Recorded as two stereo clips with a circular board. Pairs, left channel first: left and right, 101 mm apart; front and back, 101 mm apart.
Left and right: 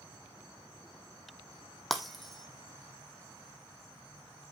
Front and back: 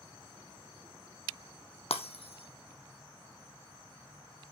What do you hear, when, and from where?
1.9 s breaking glass: straight ahead, 1.2 m